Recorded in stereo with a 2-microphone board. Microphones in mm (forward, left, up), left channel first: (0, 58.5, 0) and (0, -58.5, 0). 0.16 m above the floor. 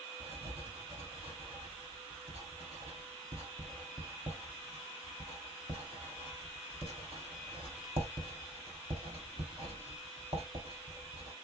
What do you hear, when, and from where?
0.2 s writing: 50° right (ahead or behind), 2.5 m